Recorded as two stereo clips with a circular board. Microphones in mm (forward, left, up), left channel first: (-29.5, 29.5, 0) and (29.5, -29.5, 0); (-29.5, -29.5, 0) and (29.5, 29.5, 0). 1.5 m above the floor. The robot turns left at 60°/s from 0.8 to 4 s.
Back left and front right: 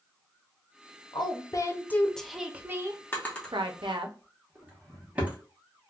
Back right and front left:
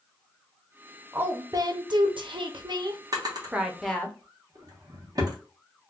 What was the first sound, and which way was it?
A woman speaking, 115° left.